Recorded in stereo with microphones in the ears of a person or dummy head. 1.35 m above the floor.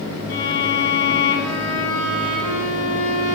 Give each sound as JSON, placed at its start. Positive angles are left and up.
{"t": 0.3, "sound": "a violin", "side_deg": 55, "distance_m": 1.8}